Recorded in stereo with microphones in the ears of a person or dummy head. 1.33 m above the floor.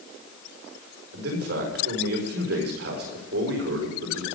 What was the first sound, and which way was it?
A man speaking, 60° right (ahead or behind).